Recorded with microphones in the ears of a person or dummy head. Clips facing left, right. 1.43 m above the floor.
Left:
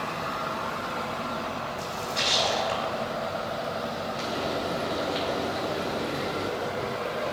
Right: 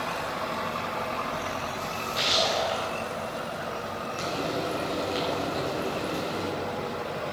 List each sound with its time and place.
1.8 s a splash: 5° right (ahead or behind), 3.5 m
4.2 s frying: 50° right (ahead or behind), 6.5 m